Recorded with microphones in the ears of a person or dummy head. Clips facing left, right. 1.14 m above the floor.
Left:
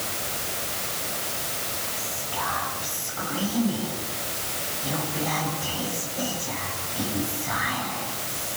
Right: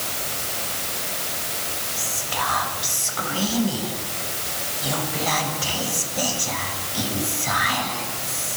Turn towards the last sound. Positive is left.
turn(degrees=-85)